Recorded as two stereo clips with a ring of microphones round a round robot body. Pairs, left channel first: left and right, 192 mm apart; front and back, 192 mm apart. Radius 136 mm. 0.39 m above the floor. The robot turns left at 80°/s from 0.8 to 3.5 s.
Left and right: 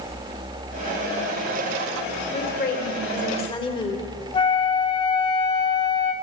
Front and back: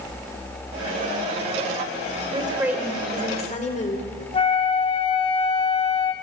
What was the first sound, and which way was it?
A woman speaking, 130° left.